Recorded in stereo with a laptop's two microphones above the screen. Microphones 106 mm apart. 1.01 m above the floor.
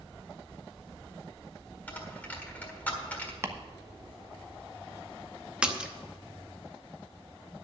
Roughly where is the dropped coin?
Centre.